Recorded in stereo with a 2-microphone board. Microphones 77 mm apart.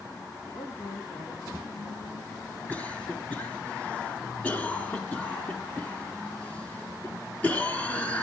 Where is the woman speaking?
70° left (ahead or behind), 5 m.